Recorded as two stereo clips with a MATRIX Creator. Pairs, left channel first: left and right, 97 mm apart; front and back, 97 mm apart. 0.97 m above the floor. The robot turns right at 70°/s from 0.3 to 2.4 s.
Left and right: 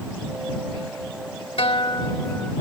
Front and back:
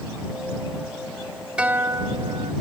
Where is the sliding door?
I don't hear a sliding door.